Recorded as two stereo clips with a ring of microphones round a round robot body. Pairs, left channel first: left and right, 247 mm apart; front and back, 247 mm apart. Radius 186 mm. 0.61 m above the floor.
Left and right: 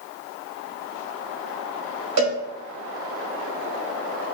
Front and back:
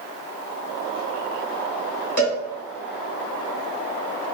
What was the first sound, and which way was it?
A cowbell, 115° right.